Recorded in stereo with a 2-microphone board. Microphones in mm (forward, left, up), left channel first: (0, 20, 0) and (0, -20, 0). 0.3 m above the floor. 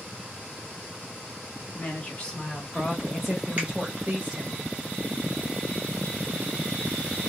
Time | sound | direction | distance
1.8 | a woman speaking | 35° left (ahead or behind) | 1.1 m
3.6 | a finger snap | 30° right (ahead or behind) | 1.4 m